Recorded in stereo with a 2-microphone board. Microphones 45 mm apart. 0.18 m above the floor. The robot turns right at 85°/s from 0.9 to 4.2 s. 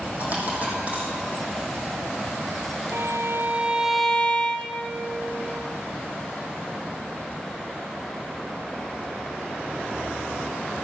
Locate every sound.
0.2 s a dropped coin: 35° right (ahead or behind), 4 m; by 1.1 s 45° right (ahead or behind), 4 m
2.9 s a violin: 85° right, 0.8 m; by 4.9 s 25° left, 0.8 m